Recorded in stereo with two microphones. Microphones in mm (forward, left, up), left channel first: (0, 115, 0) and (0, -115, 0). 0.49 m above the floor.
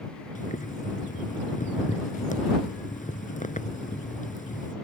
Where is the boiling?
35° left (ahead or behind).